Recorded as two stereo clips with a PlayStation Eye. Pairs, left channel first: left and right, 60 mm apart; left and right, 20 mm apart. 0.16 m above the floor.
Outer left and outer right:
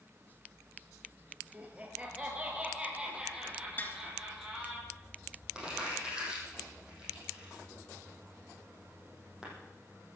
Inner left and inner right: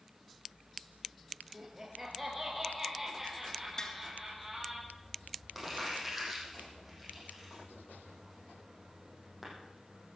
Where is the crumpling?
15° right (ahead or behind), 6 m.